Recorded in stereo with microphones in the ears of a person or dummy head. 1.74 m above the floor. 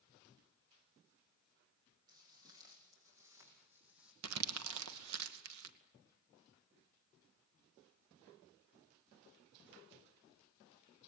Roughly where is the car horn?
No car horn in this recording.